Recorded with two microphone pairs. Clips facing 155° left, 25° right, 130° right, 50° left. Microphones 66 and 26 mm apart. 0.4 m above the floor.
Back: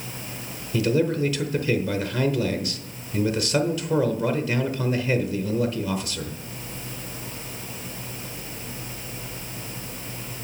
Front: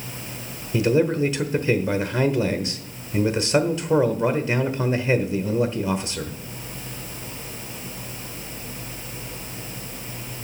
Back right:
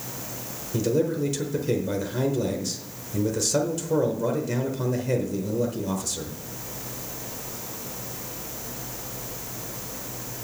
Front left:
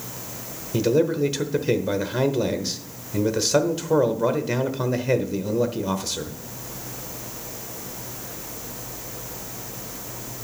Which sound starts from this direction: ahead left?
A man speaking, at 0.7 s.